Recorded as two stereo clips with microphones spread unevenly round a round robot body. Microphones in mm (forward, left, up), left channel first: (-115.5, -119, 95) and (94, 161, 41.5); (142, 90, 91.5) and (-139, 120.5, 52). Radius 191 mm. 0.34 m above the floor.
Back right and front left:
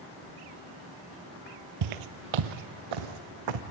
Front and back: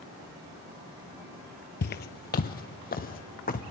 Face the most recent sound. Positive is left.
turn(degrees=55)